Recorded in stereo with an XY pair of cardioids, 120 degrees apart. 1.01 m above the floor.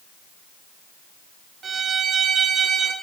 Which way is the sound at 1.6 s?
40° right.